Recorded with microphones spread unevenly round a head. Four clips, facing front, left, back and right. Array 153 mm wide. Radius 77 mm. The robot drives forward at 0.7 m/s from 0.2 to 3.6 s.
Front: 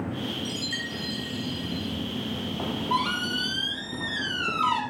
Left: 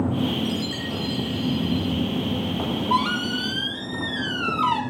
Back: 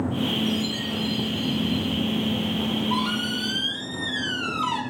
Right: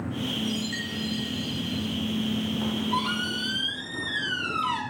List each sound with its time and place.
0.5 s a chime: 45° left, 6.5 m; by 1.9 s 50° left, 6 m
2.6 s a squeak: 75° left, 4 m; by 4.8 s 85° left, 4 m